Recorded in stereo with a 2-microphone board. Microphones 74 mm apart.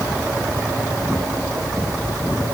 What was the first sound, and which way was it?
Only background noise.